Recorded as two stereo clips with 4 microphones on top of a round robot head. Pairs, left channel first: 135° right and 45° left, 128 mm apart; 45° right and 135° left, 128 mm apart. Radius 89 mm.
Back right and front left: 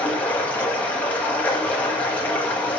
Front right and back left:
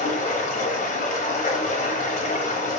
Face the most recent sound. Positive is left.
turn(degrees=-60)